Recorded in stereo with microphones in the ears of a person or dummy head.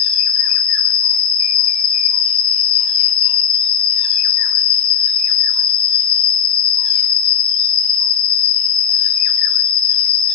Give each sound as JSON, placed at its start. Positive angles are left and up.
{"t": 0.0, "sound": "an insect", "side_deg": 5, "distance_m": 1.4}